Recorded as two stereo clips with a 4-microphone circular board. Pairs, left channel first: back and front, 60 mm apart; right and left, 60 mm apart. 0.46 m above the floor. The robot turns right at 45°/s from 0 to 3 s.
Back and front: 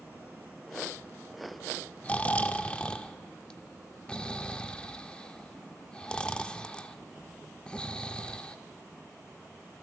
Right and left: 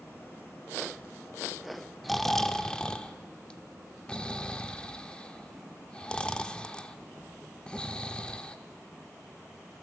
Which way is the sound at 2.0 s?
175° right.